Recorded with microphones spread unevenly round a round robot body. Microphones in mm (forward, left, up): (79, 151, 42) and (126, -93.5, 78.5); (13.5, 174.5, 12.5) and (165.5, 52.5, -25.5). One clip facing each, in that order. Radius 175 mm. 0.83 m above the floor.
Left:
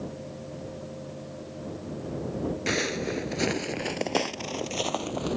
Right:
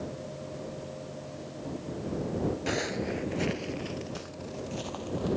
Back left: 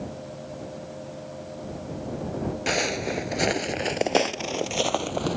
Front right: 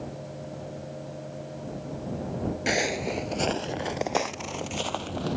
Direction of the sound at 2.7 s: 45° left.